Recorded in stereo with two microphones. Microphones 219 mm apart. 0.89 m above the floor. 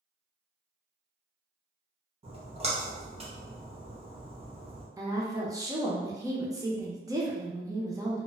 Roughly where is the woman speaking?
Centre.